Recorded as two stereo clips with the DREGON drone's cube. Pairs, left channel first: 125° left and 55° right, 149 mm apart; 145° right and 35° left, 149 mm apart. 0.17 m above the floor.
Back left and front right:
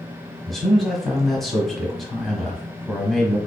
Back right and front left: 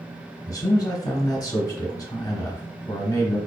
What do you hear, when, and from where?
0.5 s a man speaking: 150° right, 1.1 m